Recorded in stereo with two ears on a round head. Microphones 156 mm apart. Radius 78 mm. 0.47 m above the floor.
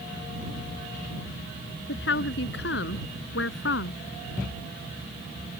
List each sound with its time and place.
1.9 s a woman speaking: 70° left (ahead or behind); by 4.0 s 75° left (ahead or behind)